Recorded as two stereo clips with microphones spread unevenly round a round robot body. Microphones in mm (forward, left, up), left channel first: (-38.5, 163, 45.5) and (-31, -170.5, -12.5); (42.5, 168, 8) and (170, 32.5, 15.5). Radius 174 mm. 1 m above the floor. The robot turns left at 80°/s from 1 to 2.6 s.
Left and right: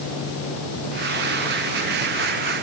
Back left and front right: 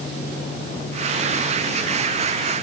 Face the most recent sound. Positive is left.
No sound to turn to.